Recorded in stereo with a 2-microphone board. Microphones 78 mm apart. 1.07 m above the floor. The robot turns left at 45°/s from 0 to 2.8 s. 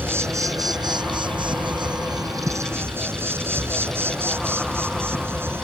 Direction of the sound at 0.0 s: 25° right.